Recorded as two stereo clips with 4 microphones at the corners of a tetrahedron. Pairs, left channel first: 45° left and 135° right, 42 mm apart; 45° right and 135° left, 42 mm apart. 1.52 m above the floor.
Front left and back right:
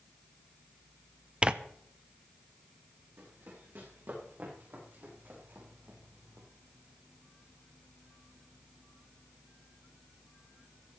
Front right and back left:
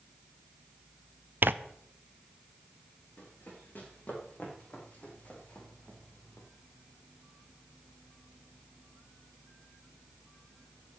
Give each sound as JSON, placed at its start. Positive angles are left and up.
{"t": 1.4, "sound": "tearing paper", "azimuth_deg": 160, "distance_m": 0.7}
{"t": 3.2, "sound": "running footsteps", "azimuth_deg": -95, "distance_m": 5.0}